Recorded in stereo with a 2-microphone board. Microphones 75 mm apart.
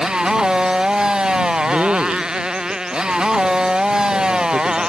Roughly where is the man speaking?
Right.